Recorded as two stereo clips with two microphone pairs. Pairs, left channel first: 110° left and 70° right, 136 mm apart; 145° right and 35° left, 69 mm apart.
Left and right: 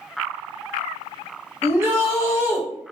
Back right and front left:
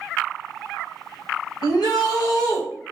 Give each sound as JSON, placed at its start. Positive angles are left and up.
{"t": 1.6, "sound": "a shout", "azimuth_deg": -140, "distance_m": 1.5}